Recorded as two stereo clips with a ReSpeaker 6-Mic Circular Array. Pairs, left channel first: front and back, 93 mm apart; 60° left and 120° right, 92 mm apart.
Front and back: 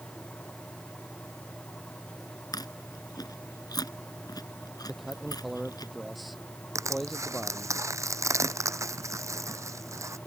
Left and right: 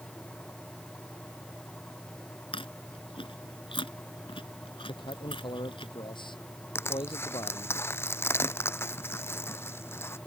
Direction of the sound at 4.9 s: 90° left.